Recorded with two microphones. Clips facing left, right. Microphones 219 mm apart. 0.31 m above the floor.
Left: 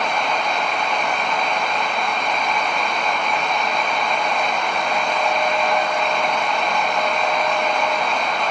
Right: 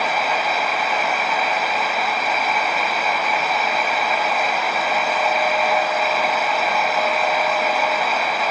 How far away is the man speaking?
No man speaking in this recording.